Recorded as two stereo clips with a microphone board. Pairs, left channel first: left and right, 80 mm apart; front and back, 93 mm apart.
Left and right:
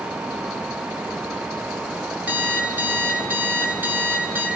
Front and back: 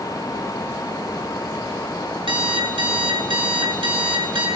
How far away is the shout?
I don't hear a shout.